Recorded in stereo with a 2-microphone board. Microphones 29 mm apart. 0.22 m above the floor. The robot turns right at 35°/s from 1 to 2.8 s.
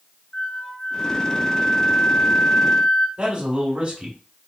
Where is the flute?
75° left, 2 m; by 3.1 s 135° left, 2 m.